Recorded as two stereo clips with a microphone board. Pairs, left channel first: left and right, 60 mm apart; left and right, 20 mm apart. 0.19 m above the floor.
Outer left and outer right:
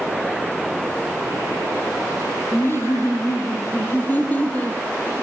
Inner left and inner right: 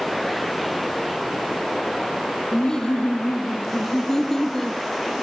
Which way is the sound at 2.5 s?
40° left (ahead or behind).